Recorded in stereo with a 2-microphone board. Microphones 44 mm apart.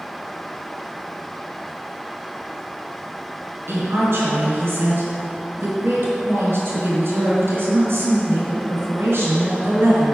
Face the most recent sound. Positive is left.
turn(degrees=-60)  # may be behind; listen again after turning